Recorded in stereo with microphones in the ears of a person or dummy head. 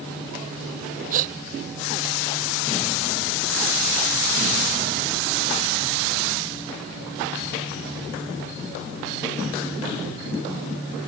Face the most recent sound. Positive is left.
turn(degrees=-45)  # may be behind; listen again after turning